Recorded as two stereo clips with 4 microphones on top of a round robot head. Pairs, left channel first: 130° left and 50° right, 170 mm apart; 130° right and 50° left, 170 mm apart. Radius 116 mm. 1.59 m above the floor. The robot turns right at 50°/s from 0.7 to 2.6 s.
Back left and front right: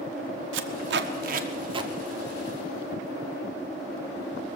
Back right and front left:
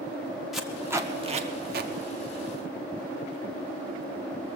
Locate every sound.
0.5 s tape being pulled: 40° right, 0.9 m; by 1.9 s 20° left, 0.9 m